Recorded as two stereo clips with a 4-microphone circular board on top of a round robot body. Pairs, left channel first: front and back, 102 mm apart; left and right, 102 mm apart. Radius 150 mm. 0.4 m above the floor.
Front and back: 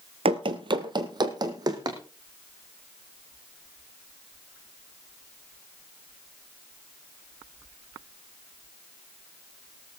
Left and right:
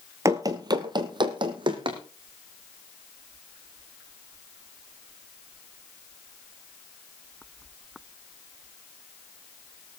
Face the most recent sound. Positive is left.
turn(degrees=-130)